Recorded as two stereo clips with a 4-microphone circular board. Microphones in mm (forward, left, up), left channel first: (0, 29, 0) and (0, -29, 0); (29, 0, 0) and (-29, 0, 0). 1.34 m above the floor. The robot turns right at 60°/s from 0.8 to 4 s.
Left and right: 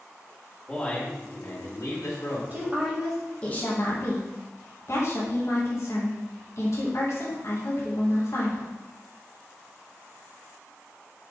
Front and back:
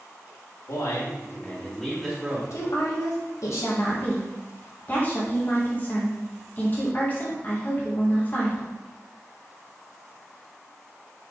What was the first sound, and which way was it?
A man speaking, 20° left.